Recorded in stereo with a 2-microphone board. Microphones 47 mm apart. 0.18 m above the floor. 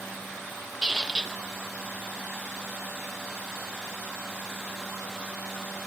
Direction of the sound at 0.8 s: 10° right (ahead or behind).